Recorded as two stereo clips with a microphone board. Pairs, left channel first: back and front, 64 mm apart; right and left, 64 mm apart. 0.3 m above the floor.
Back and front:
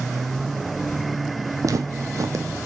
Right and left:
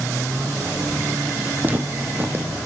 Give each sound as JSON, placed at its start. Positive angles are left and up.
{"t": 1.6, "sound": "footsteps", "azimuth_deg": 30, "distance_m": 0.8}